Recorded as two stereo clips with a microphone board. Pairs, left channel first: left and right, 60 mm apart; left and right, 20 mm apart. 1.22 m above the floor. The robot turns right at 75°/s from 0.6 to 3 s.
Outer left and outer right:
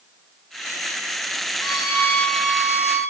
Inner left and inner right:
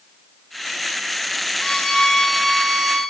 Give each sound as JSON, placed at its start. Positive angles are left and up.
{"t": 1.6, "sound": "a violin", "azimuth_deg": 105, "distance_m": 0.8}